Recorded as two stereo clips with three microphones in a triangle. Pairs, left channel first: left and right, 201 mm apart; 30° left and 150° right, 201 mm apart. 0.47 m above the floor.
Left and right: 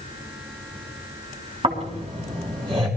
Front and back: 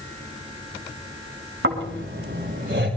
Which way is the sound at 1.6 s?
150° right.